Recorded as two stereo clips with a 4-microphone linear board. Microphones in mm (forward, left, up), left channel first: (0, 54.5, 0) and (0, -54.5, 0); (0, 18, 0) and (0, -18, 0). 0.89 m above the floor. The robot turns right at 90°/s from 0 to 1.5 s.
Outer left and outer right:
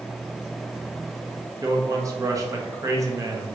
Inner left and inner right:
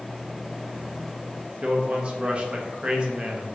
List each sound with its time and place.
1.6 s a man speaking: 30° right (ahead or behind), 0.6 m